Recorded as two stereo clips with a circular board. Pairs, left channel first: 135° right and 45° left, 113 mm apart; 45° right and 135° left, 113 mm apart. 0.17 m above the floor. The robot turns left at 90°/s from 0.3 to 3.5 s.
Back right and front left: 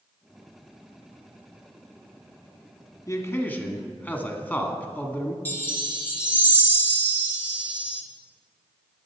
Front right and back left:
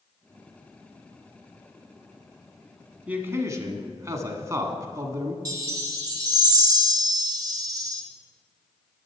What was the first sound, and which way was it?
A man speaking, 155° right.